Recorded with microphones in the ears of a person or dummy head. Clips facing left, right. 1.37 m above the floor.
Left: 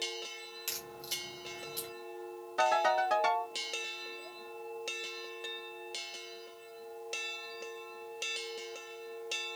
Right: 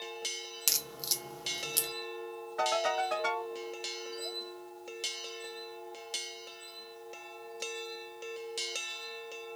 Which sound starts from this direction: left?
A ringtone, at 2.6 s.